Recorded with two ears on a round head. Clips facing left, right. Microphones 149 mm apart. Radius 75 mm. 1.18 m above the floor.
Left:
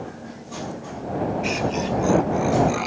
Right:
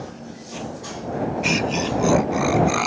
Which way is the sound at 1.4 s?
65° right (ahead or behind).